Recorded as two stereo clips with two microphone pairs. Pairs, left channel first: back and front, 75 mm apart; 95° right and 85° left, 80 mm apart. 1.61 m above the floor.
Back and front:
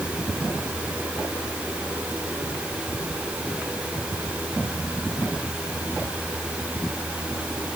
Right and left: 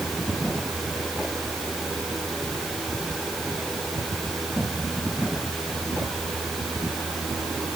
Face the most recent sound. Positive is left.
No sound to turn to.